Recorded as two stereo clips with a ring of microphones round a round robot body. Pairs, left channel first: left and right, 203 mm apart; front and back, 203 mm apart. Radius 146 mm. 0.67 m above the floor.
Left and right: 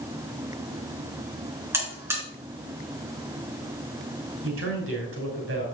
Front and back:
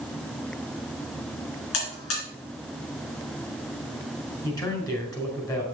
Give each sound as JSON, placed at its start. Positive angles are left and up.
{"t": 1.7, "sound": "a buzzer", "azimuth_deg": -10, "distance_m": 3.5}
{"t": 4.4, "sound": "a man speaking", "azimuth_deg": -70, "distance_m": 3.5}